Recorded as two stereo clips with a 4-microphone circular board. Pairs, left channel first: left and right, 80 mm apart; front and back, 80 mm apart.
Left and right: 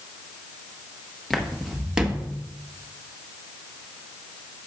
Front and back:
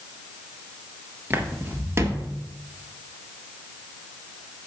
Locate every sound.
1.3 s footsteps: 170° left, 1.3 m; by 2.4 s 155° right, 1.5 m